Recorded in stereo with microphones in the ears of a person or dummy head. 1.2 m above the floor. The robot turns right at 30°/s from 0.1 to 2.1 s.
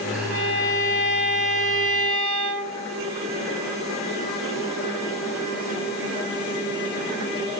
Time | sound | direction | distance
0.3 | a violin | 120° right | 3 m